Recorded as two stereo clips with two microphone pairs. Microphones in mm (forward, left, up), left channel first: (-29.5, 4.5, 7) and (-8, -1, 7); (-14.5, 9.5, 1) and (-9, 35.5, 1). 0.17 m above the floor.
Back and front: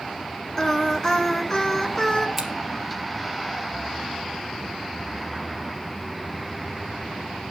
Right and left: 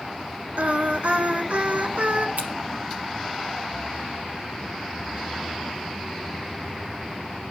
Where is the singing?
95° left, 1.5 m.